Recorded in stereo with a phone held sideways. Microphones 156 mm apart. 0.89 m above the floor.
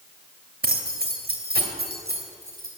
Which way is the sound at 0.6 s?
70° right (ahead or behind).